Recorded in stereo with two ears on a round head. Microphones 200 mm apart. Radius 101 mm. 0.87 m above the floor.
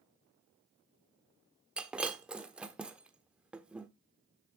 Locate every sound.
1.8 s breaking glass: 5° right (ahead or behind), 1.1 m